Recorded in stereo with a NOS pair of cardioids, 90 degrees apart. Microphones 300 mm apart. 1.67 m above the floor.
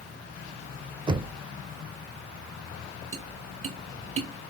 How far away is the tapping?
About 1.1 m.